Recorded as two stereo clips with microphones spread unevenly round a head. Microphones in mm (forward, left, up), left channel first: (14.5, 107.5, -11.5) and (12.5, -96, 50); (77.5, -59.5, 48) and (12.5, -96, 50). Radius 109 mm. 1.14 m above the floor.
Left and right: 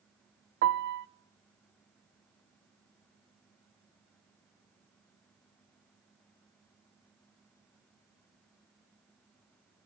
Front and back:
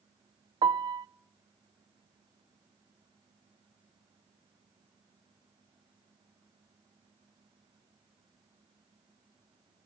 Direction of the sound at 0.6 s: 140° right.